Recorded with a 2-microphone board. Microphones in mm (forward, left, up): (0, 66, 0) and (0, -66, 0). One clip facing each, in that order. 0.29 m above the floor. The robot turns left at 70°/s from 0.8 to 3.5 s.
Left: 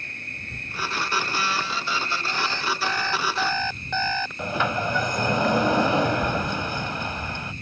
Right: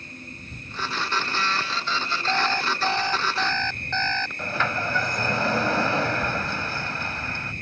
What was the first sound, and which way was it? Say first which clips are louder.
An insect: right 1 dB; 70° left.